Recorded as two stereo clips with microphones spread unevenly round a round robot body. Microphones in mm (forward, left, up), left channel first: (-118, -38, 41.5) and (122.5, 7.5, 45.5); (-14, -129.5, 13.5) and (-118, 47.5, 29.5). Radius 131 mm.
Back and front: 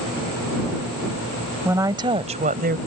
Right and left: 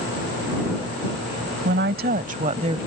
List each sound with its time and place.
1.6 s a woman speaking: 90° left; by 2.8 s 55° left